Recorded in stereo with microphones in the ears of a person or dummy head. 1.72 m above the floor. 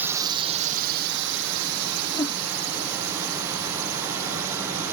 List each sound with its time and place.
0.0 s a drone: 10° right (ahead or behind); by 4.9 s 65° right (ahead or behind)
2.1 s a whoosh: 20° left (ahead or behind)